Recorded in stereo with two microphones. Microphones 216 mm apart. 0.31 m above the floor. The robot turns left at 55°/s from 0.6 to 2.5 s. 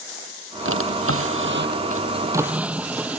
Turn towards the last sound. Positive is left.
turn(degrees=-175)